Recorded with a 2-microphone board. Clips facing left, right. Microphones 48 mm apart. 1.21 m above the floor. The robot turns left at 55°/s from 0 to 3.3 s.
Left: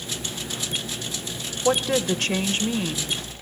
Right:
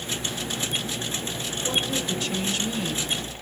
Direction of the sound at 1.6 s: 95° left.